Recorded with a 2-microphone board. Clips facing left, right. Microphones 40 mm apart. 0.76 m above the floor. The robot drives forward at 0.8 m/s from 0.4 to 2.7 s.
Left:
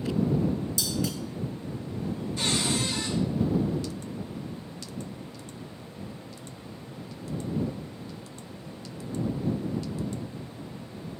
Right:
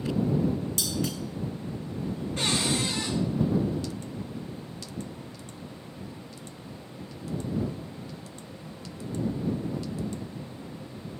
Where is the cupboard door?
70° right (ahead or behind), 2 m.